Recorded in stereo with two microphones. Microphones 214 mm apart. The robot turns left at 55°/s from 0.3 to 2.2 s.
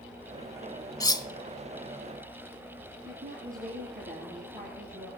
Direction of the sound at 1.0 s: 15° left (ahead or behind).